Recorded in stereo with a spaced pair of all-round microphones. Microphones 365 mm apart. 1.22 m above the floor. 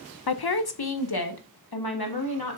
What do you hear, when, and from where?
0.3 s a woman speaking: 80° left, 0.6 m